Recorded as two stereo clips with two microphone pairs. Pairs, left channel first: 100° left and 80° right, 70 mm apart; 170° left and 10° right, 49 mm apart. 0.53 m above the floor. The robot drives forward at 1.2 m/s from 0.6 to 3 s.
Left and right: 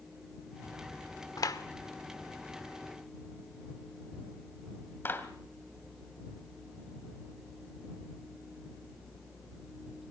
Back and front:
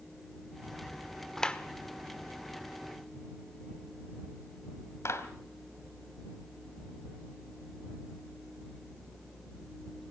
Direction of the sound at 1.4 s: 90° left.